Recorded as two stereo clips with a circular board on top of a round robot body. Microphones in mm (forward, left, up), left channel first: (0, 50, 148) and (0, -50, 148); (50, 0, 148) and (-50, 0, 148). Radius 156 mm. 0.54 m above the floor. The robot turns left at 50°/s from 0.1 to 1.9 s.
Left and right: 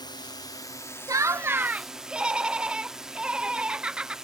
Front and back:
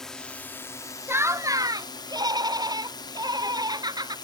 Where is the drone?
80° left; by 4.2 s 10° right.